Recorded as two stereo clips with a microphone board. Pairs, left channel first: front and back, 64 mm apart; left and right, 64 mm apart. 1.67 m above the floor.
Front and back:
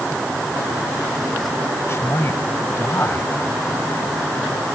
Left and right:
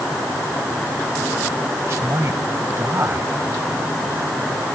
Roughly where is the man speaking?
Ahead right.